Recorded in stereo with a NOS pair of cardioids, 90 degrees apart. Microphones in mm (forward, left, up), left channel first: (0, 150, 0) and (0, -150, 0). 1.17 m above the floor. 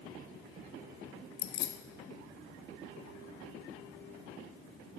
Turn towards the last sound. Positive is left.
turn(degrees=65)